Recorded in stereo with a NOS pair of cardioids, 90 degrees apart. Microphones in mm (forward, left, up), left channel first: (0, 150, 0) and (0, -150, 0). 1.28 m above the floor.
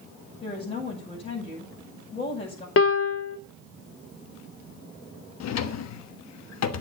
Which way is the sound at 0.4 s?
20° left.